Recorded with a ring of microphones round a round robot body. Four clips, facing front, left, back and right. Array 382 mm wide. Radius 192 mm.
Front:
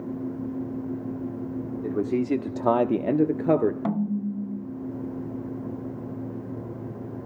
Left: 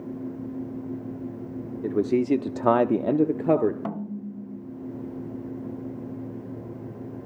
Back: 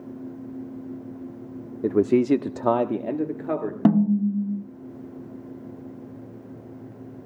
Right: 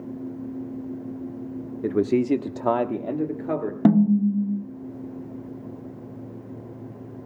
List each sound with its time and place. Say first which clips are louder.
1.8 s a man speaking: right 1 dB, back 7 dB; 160° right, 1.4 m; by 3.8 s 45° left, 1.8 m
3.9 s a snare drum: right 15 dB, back 7 dB; 130° right, 1.0 m